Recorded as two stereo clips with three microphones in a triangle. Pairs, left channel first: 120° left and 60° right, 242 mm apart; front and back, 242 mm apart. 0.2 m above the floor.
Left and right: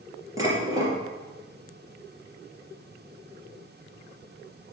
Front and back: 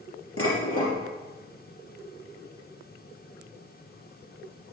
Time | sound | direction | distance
0.4 | dishes clattering | 15° left | 3 m